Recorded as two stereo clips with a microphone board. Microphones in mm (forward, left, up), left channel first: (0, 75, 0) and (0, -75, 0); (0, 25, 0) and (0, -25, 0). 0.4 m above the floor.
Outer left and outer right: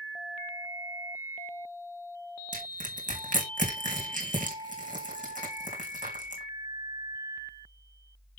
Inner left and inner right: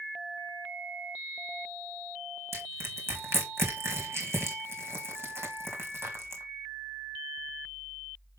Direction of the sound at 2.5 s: 60° right (ahead or behind).